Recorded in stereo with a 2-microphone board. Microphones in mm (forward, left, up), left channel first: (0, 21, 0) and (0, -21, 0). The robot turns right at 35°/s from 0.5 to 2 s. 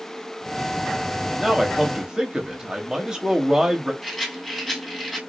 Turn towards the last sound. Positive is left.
turn(degrees=0)  # may be behind; listen again after turning